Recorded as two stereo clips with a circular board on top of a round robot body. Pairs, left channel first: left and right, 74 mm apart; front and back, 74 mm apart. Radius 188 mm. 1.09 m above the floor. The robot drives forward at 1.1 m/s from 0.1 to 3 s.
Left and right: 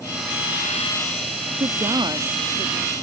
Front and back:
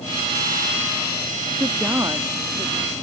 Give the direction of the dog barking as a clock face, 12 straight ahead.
No dog barking in this recording.